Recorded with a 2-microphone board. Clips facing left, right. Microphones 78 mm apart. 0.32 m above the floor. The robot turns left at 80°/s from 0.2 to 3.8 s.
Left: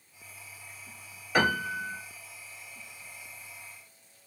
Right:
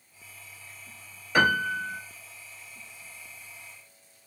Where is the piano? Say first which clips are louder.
Right 3 dB; straight behind, 1.9 m; by 2.0 s 130° left, 1.9 m.